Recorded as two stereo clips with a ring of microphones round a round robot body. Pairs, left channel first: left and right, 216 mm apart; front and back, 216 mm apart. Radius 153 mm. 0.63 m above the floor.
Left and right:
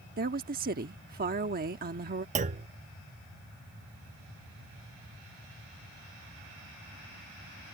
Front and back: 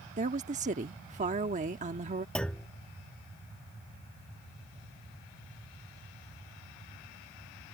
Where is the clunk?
80° right.